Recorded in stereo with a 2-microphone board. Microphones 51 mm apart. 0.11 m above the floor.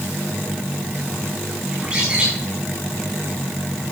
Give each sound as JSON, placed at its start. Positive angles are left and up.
{"t": 1.7, "sound": "a bird", "side_deg": -25, "distance_m": 6.5}